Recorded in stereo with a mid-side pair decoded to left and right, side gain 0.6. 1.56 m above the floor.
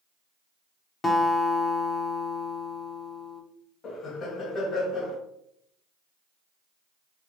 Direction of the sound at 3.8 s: 35° left.